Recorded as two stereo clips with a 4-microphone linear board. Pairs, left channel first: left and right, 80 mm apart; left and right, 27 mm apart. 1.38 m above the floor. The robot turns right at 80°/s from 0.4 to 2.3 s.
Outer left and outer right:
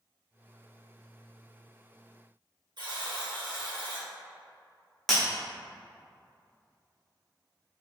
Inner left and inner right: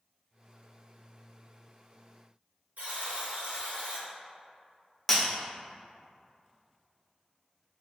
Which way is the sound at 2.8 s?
70° right (ahead or behind).